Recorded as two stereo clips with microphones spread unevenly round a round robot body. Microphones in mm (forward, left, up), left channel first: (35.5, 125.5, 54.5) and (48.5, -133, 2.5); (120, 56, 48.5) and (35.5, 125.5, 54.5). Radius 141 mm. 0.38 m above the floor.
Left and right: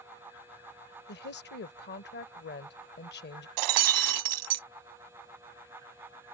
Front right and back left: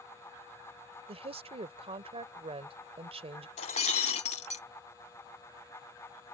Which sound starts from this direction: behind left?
A woman speaking, at 1.1 s.